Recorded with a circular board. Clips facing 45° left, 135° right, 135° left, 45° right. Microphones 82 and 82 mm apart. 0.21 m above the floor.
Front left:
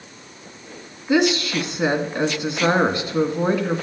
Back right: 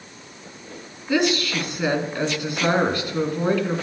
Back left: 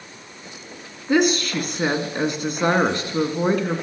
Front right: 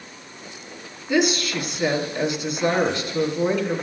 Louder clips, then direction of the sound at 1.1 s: Front left 3 dB, back left 2 dB; 110° left.